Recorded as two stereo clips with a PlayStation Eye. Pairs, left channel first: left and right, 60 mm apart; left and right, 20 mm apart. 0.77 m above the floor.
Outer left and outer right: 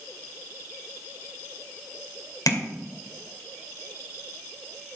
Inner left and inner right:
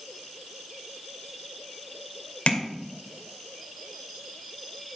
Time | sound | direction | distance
2.5 | tapping | 80° left | 2.5 m